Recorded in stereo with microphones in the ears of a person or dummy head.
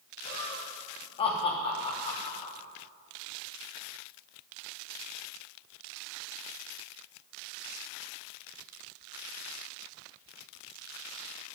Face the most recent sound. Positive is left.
turn(degrees=20)  # may be behind; listen again after turning